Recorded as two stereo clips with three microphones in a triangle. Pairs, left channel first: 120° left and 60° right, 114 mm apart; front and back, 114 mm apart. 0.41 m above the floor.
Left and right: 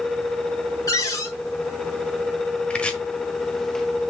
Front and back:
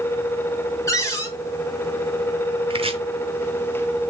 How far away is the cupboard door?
About 2 m.